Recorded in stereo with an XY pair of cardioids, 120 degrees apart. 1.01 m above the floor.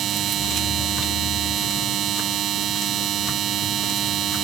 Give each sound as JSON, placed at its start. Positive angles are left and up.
{"t": 0.0, "sound": "a machine running", "azimuth_deg": -60}